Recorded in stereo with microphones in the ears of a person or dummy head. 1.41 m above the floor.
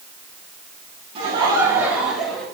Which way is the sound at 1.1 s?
35° right (ahead or behind).